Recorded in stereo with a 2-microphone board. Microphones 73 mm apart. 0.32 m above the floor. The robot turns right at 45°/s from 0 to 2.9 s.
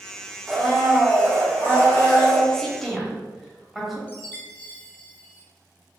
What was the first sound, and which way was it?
A blender, 5° left (ahead or behind).